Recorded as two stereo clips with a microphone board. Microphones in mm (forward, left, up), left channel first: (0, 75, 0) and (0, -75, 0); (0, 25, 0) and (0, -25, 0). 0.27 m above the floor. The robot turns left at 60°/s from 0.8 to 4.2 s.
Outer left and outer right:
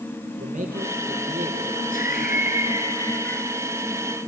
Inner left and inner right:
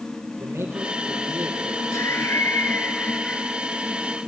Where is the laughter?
100° left, 3 m; by 3.5 s 5° left, 3 m.